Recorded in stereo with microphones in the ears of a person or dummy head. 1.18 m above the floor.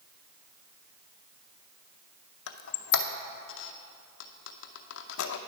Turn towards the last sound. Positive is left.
turn(degrees=75)  # may be behind; listen again after turning